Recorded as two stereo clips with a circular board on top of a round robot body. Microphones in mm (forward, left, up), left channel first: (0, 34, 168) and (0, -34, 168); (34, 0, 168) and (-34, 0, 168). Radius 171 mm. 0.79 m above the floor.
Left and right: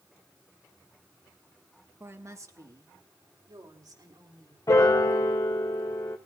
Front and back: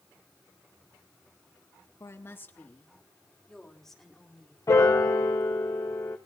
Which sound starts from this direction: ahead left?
A piano, at 4.7 s.